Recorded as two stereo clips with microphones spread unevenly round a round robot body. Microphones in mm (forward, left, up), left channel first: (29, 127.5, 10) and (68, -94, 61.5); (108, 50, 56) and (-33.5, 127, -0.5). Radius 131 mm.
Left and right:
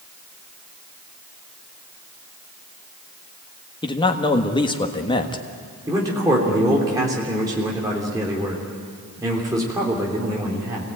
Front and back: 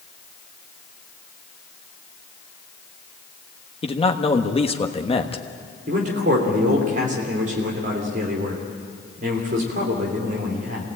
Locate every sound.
3.8 s a man speaking: 35° left, 1.4 m
5.9 s a man speaking: 160° right, 3 m